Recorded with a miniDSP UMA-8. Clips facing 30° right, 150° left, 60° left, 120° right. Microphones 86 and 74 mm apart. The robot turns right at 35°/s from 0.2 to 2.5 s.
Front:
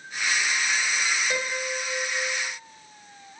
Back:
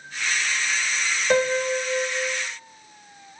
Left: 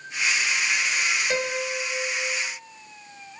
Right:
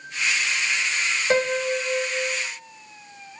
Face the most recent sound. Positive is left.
turn(degrees=-130)